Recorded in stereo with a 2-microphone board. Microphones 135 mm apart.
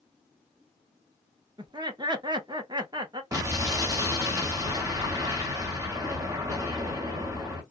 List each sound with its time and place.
1.6 s laughter: 30° right (ahead or behind), 0.8 m
3.3 s an explosion: 25° right (ahead or behind), 1.0 m